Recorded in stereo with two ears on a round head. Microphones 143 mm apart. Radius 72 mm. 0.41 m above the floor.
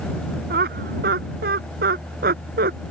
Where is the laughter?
60° right (ahead or behind).